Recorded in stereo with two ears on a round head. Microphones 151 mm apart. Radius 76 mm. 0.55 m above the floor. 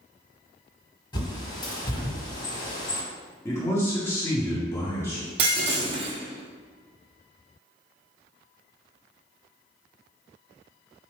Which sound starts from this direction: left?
A bird, at 1.1 s.